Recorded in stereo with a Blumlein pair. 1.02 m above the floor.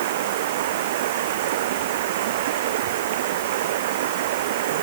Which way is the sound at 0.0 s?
55° right.